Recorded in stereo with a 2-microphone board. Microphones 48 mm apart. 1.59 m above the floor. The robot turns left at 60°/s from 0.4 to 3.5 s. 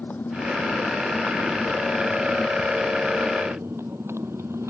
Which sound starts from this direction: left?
A motorcycle, at 0.0 s.